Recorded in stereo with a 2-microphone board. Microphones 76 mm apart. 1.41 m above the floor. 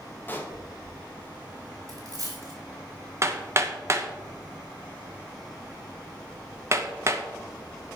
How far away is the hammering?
About 1.1 m.